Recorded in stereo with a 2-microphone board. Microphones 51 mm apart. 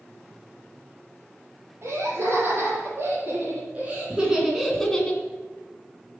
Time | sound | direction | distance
1.8 | laughter | 50° right (ahead or behind) | 5.5 m